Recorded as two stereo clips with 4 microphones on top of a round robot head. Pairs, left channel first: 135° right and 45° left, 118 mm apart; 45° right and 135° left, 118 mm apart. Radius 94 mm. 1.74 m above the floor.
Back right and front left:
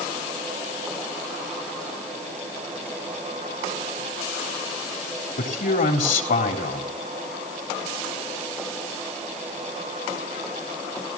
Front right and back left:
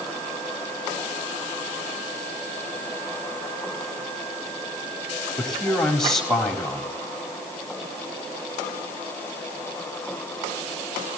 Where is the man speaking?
130° right, 4 m.